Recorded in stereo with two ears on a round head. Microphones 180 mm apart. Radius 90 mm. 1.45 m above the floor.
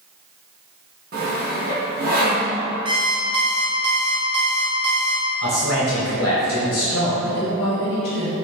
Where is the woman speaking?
50° left (ahead or behind), 1.0 m.